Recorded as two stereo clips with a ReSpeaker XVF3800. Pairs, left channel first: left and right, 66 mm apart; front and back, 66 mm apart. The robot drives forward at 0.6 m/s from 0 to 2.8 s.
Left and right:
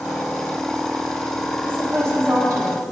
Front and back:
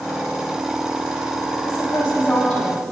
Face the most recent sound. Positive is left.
turn(degrees=-75)